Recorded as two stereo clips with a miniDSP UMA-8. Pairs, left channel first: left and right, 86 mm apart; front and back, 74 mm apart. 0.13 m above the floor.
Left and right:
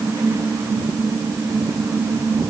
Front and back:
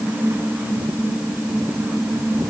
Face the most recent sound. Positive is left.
No sound to turn to.